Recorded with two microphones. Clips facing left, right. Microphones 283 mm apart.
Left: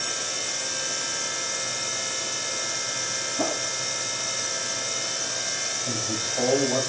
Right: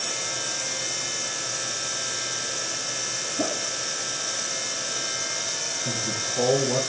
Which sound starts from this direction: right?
A man speaking, at 5.8 s.